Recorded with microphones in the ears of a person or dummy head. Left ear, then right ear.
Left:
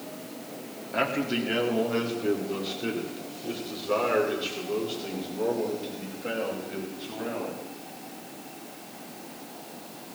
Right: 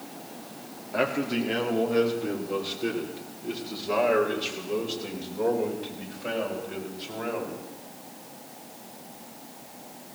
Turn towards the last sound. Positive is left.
turn(degrees=-20)  # may be behind; listen again after turning